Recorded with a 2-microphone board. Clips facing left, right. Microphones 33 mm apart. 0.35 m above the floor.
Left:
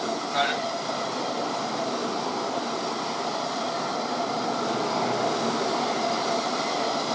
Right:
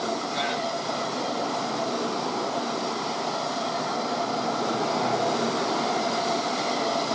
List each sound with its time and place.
0.3 s a man speaking: 55° left (ahead or behind), 1.9 m